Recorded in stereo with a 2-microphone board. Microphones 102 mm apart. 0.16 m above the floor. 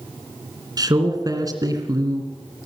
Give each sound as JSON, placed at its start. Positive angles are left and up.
{"t": 0.8, "sound": "a man speaking", "side_deg": -40, "distance_m": 2.5}